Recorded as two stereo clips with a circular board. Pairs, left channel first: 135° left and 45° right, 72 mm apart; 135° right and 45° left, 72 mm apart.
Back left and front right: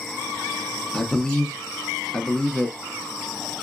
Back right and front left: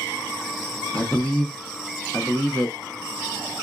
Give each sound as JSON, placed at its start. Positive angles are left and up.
{"t": 0.9, "sound": "a man speaking", "azimuth_deg": -175, "distance_m": 0.6}